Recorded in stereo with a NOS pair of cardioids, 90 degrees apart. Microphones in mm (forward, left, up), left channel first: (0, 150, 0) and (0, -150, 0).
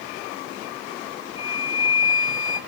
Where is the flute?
15° left, 0.9 m.